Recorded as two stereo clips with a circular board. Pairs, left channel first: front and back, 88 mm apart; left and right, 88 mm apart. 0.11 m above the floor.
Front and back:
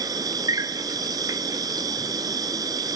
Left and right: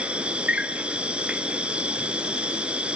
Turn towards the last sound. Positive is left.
turn(degrees=-165)